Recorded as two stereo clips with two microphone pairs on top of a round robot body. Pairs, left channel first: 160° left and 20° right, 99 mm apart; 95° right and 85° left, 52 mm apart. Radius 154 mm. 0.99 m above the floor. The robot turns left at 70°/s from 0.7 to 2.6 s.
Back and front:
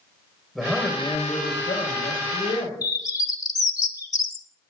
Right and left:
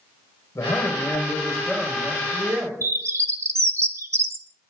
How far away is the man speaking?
About 5.5 m.